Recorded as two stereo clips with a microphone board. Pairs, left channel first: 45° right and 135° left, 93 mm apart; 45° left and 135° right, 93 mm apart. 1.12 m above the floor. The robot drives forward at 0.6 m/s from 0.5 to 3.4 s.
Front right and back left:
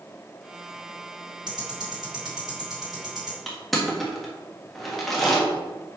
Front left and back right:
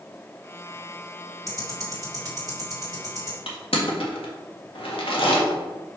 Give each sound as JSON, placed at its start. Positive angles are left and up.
{"t": 1.5, "sound": "ticking", "azimuth_deg": 175, "distance_m": 2.0}
{"t": 3.5, "sound": "crushing", "azimuth_deg": 45, "distance_m": 1.5}